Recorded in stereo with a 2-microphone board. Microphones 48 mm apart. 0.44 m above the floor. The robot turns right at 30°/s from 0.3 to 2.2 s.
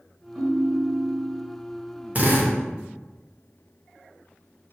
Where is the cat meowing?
No cat meowing in this recording.